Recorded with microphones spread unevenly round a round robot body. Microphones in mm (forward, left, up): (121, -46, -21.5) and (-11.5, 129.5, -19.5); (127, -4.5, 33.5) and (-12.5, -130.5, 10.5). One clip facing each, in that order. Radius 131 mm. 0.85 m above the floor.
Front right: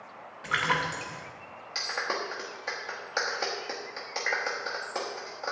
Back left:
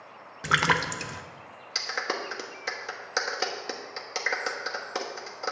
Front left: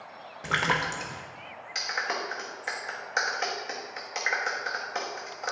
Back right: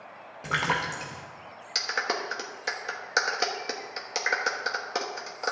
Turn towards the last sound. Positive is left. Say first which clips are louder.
# back left 1 dB, back right 3 dB
turn(degrees=180)